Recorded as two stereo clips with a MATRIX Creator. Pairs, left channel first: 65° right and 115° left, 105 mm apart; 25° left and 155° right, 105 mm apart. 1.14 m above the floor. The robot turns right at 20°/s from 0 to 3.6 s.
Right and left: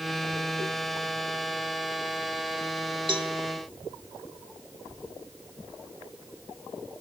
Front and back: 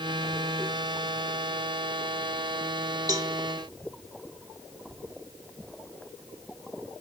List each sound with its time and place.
3.1 s a cowbell: 150° left, 1.5 m; by 3.3 s 155° left, 1.5 m